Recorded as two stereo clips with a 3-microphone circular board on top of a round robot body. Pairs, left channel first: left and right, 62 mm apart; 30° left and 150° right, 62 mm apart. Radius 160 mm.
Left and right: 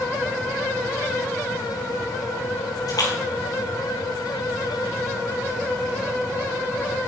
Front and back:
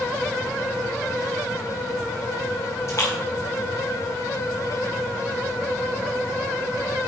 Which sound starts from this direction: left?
A splash, at 2.9 s.